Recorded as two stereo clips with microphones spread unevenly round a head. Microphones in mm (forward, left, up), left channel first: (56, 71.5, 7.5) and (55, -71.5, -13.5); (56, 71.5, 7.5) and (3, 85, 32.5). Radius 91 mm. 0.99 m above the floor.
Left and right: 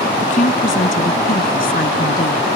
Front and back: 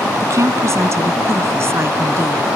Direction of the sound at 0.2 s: 145° left.